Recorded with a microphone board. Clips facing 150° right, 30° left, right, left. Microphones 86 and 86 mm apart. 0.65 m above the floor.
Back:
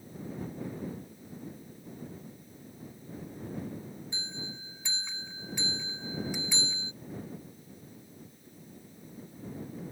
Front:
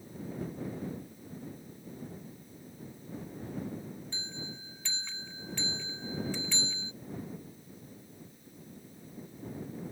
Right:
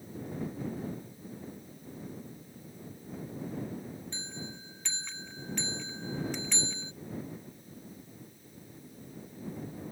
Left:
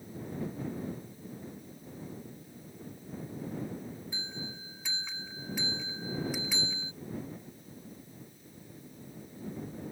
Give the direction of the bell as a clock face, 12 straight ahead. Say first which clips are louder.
Back 1 dB, even; 7 o'clock.